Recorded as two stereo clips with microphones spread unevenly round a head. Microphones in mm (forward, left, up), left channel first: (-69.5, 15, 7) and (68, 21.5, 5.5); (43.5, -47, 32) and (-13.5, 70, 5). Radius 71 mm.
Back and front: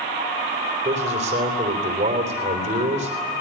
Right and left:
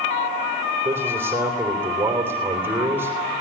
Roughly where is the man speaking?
Ahead left.